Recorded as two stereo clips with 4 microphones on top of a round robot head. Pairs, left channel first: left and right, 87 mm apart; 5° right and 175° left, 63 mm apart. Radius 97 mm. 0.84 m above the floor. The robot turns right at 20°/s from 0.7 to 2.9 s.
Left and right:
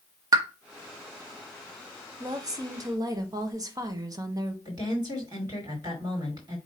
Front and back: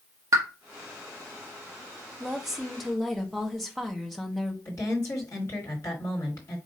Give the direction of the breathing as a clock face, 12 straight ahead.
I don't hear breathing.